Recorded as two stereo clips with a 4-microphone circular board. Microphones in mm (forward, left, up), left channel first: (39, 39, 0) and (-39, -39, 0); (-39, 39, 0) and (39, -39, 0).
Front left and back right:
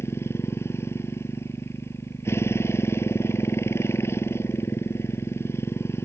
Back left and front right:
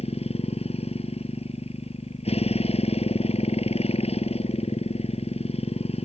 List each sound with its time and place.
0.0 s a motorcycle: 115° left